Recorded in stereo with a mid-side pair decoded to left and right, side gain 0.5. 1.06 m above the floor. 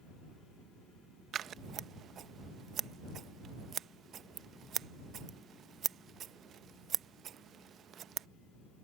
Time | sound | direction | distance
1.3 | scissors | 55° right | ?